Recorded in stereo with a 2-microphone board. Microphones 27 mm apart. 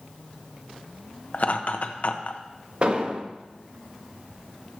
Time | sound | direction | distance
1.3 | laughter | 50° left (ahead or behind) | 0.9 m
2.8 | an explosion | 40° right (ahead or behind) | 0.7 m